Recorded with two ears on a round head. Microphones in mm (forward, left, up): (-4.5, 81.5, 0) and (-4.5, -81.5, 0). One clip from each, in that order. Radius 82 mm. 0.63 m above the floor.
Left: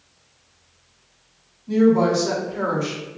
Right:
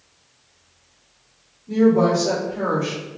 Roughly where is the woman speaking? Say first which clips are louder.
Right 1 dB; left.